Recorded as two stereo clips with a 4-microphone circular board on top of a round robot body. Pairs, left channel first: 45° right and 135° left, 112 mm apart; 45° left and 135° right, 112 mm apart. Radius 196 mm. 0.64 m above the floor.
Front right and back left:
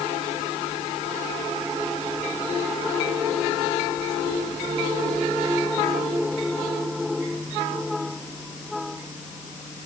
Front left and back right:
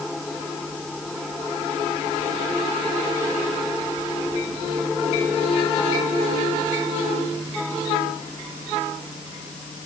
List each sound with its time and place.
Only background noise.